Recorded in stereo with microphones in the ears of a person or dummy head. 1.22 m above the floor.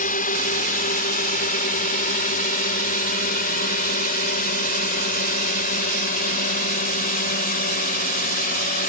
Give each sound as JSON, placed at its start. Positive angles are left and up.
{"t": 0.0, "sound": "a drone", "side_deg": 40}